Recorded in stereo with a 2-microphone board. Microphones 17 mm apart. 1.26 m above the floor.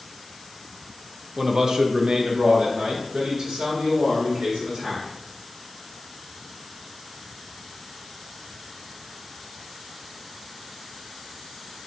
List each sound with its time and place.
1.4 s a man speaking: 30° right (ahead or behind), 0.5 m; by 5.1 s 75° right (ahead or behind), 2 m